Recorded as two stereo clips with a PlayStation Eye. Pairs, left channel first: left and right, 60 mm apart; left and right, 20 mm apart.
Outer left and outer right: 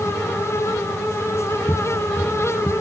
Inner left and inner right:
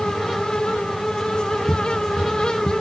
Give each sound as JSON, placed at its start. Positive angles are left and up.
{"t": 1.7, "sound": "footsteps", "side_deg": 10}